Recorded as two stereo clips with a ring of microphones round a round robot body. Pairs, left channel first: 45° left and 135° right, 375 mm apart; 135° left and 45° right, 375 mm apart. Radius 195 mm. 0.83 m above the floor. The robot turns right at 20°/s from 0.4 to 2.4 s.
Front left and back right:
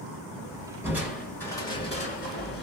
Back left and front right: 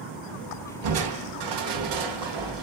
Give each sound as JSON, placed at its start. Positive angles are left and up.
{"t": 0.8, "sound": "crushing", "azimuth_deg": -50, "distance_m": 1.4}